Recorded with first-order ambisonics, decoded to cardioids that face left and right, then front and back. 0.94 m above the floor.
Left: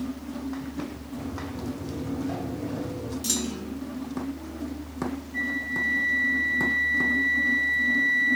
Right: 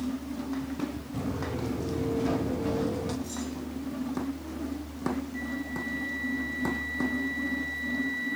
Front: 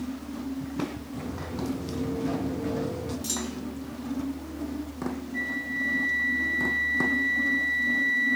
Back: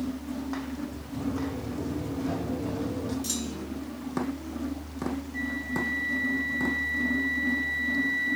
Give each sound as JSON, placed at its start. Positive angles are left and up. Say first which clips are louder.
{"t": 1.1, "sound": "footsteps", "louder": "right 2 dB, back 5 dB", "azimuth_deg": -90, "distance_m": 8.5}
{"t": 3.2, "sound": "a clunk", "louder": "left 7 dB, front 1 dB", "azimuth_deg": 90, "distance_m": 1.5}
{"t": 5.3, "sound": "a flute", "louder": "left 8 dB, front 3 dB", "azimuth_deg": 75, "distance_m": 0.8}